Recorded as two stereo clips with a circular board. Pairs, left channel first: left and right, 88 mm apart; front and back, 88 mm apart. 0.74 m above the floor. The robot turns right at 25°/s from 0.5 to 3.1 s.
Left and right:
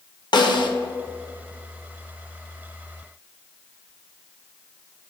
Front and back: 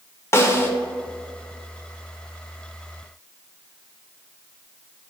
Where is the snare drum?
55° left, 0.7 m; by 0.7 s 60° left, 0.7 m.